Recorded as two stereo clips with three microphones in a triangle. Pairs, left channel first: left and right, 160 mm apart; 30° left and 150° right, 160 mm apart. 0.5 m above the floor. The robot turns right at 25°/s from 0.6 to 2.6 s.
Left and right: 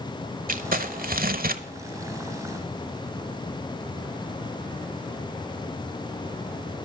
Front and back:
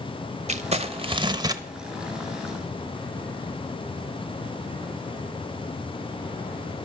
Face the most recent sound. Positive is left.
turn(degrees=-60)